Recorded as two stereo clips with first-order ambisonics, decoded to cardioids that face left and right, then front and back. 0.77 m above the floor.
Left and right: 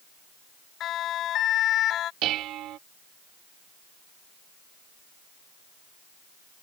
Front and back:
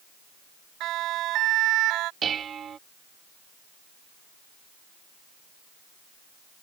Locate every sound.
0.8 s a siren: 140° left; by 2.1 s 145° left
2.2 s dishes clattering: 120° right